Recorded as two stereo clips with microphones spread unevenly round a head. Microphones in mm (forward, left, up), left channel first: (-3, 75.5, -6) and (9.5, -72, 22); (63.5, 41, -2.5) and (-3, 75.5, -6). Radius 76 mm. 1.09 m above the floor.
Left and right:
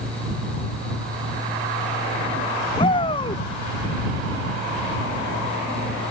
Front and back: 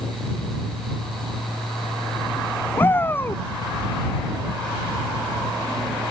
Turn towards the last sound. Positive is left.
turn(degrees=35)